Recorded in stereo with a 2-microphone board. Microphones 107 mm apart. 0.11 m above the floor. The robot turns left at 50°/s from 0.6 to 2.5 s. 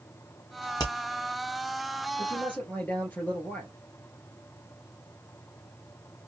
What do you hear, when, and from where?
0.8 s hammering: 40° left (ahead or behind), 1.9 m; by 0.9 s 45° left (ahead or behind), 1.9 m
2.2 s a man speaking: 30° left (ahead or behind), 2.5 m; by 3.7 s 20° left (ahead or behind), 2.5 m